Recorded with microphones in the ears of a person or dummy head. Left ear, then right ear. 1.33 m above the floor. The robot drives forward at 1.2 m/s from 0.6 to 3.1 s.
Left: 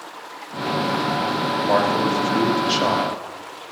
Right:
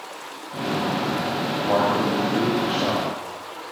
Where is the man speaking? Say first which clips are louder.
Left 1 dB; 50° left (ahead or behind), 6.5 m; by 3.2 s 65° left (ahead or behind), 5.5 m.